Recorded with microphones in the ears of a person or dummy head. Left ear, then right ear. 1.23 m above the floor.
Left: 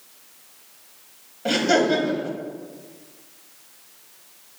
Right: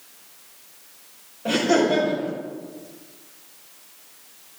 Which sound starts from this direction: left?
Laughter, at 1.4 s.